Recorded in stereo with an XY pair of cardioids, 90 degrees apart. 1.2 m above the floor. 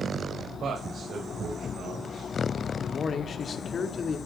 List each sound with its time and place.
0.6 s a man speaking: 60° right, 6.5 m
2.7 s a man speaking: 55° left, 2.5 m